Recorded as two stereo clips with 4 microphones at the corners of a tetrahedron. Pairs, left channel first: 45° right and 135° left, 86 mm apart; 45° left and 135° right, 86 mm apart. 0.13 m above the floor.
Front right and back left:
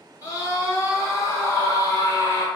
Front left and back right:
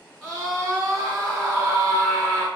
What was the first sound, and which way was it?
A scream, 35° right.